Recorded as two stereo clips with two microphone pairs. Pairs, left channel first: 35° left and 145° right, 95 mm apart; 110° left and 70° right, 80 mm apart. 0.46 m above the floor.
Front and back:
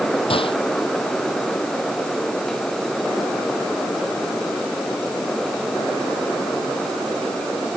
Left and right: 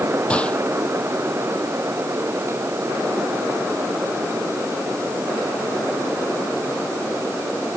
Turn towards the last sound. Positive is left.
turn(degrees=35)